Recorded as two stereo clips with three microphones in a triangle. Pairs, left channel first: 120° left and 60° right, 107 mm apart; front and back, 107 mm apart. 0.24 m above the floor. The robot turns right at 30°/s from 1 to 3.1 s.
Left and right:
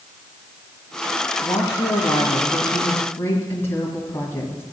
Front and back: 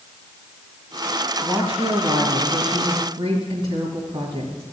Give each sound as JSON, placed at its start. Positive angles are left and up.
{"t": 1.4, "sound": "a woman speaking", "azimuth_deg": 130, "distance_m": 1.9}